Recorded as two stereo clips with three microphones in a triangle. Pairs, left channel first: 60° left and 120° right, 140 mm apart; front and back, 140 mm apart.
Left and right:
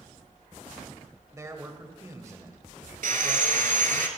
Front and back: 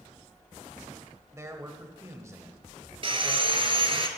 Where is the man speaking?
150° right, 0.9 m.